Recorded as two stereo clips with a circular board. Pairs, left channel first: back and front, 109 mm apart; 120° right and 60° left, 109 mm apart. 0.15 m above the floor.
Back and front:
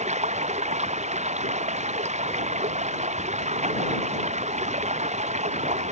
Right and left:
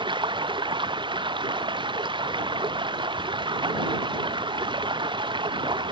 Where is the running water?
10° left.